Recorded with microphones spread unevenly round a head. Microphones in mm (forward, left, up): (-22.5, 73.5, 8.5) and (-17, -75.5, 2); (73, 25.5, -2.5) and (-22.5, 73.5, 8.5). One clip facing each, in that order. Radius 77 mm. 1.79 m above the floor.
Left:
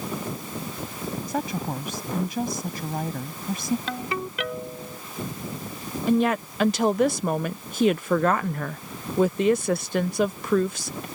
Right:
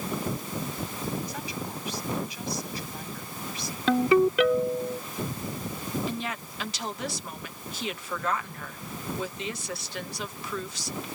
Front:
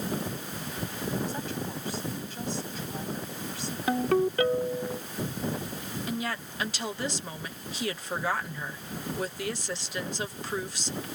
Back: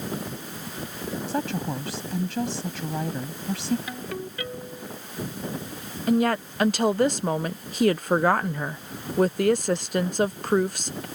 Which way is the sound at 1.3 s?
135° left.